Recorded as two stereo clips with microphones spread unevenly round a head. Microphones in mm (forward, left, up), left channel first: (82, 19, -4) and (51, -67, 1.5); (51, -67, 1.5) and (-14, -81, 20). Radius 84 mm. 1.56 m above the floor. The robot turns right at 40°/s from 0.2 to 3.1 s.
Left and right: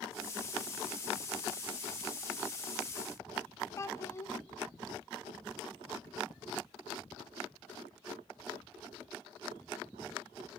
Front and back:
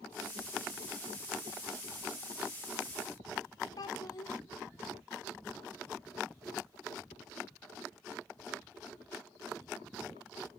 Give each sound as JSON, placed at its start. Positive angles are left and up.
{"t": 3.8, "sound": "a child speaking", "azimuth_deg": 30, "distance_m": 0.6}